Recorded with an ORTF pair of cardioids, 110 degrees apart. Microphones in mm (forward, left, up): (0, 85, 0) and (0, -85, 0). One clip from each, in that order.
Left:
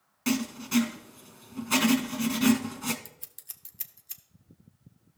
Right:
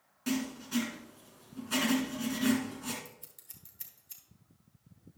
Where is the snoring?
No snoring in this recording.